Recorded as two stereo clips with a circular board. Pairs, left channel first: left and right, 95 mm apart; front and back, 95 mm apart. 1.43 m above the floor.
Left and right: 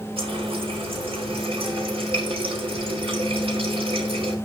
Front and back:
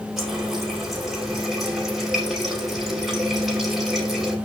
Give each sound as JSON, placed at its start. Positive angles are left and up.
{"t": 0.2, "sound": "a running tap", "azimuth_deg": -90, "distance_m": 3.5}